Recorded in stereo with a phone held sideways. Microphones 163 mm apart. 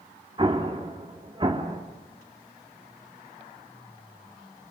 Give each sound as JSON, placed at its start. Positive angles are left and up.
{"t": 0.4, "sound": "an explosion", "side_deg": -30, "distance_m": 2.5}